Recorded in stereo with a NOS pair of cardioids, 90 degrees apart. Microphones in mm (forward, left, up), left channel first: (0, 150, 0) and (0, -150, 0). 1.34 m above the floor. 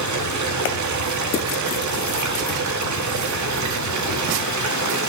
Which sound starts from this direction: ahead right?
Running water, at 0.0 s.